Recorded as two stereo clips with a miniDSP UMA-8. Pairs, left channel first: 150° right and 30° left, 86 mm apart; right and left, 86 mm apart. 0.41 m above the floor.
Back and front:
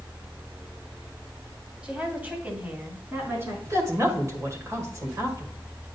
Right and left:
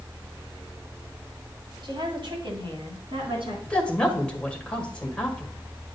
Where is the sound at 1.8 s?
105° left, 2 m; by 3.5 s 90° left, 4 m.